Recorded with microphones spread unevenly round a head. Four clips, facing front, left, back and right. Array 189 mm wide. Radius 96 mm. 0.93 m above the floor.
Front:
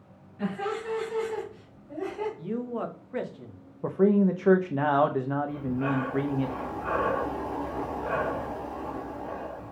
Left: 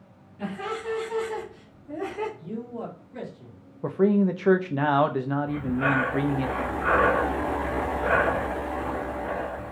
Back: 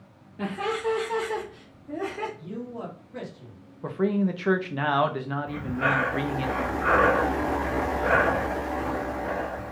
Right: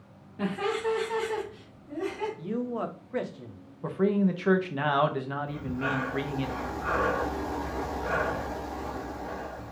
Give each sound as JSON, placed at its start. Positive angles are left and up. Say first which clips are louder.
{"t": 0.4, "sound": "laughter", "louder": "right 3 dB, back 3 dB", "azimuth_deg": -130, "distance_m": 1.5}
{"t": 2.4, "sound": "a man speaking", "louder": "right 3 dB, front 4 dB", "azimuth_deg": -55, "distance_m": 1.2}
{"t": 3.8, "sound": "a man speaking", "louder": "left 4 dB, front 3 dB", "azimuth_deg": 45, "distance_m": 0.6}
{"t": 5.5, "sound": "breathing", "louder": "left 6 dB, back 2 dB", "azimuth_deg": 155, "distance_m": 0.6}